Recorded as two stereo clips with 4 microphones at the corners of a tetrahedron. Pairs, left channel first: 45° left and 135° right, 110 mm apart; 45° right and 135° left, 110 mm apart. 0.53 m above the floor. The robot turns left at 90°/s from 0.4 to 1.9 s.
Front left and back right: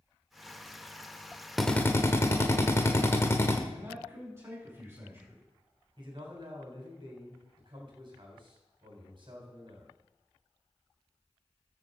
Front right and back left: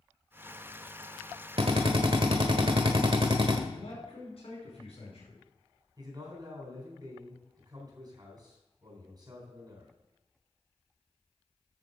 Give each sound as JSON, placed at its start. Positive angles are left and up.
{"t": 1.6, "sound": "a drill", "azimuth_deg": 135, "distance_m": 1.5}
{"t": 3.7, "sound": "a man speaking", "azimuth_deg": -70, "distance_m": 5.5}
{"t": 6.0, "sound": "a man speaking", "azimuth_deg": -175, "distance_m": 3.5}